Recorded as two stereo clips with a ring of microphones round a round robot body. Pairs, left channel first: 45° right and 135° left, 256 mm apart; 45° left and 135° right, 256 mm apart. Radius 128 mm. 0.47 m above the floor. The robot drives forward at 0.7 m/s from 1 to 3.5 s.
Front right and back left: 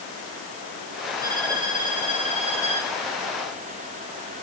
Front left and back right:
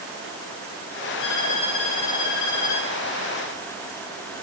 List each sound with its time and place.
1.2 s a violin: 60° left, 5.5 m; by 2.9 s 70° left, 5 m